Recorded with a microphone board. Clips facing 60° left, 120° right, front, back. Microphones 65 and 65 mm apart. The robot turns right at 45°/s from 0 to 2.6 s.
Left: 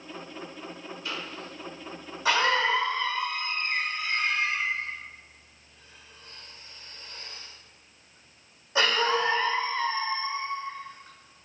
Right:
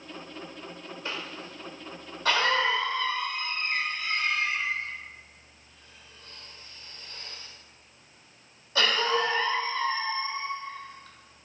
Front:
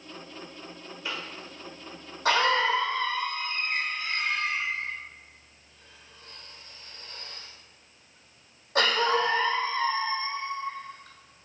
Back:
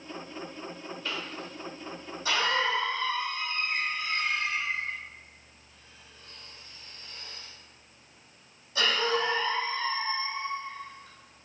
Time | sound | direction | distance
1.1 | a cough | 75° right | 1.2 m